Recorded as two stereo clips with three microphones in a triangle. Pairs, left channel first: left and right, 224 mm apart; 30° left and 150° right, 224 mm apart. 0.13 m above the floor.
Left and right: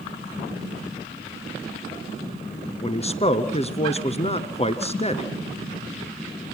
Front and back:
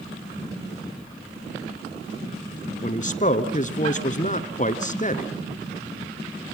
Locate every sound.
2.8 s a man speaking: 50° left, 1.5 m